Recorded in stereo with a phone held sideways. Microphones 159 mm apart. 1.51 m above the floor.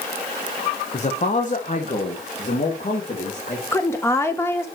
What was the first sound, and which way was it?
A man speaking, 45° left (ahead or behind).